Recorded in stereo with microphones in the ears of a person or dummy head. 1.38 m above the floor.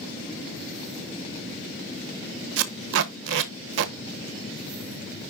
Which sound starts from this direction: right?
Tape being pulled, at 2.6 s.